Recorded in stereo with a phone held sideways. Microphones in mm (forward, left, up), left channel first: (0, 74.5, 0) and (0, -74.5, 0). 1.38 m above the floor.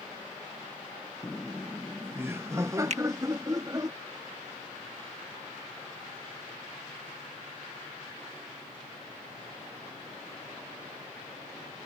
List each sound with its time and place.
1.2 s laughter: 10° left (ahead or behind); by 3.9 s 25° right (ahead or behind)
2.9 s a finger snap: 55° right (ahead or behind)